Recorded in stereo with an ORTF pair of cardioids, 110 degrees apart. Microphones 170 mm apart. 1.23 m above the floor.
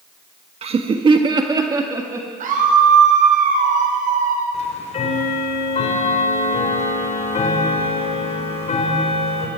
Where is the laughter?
35° right, 1.4 m; by 2.3 s 15° right, 2.5 m.